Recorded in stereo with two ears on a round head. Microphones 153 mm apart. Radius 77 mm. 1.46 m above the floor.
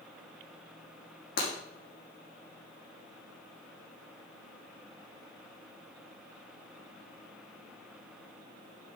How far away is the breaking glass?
About 5.5 m.